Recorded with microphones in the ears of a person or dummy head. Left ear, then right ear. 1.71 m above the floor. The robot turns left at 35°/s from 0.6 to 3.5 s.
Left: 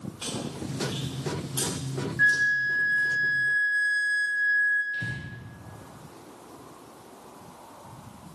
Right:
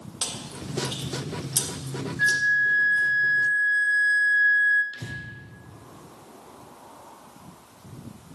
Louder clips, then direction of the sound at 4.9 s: Left 5 dB; 80° right.